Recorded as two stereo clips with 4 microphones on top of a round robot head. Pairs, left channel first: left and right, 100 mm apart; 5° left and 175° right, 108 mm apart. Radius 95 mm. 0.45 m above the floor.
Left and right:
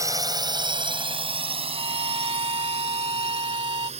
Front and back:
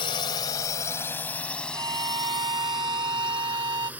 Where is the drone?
35° right; by 4.0 s 95° right.